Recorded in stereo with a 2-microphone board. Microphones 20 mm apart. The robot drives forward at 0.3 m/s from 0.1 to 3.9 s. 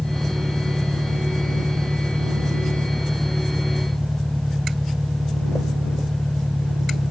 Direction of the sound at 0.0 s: 10° right (ahead or behind).